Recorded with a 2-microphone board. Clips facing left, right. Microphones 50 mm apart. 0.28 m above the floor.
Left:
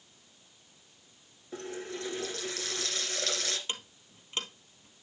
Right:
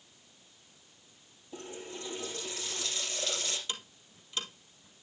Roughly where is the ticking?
Left.